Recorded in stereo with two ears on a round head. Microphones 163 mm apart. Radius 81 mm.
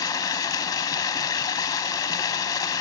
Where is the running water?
20° left (ahead or behind), 0.8 m.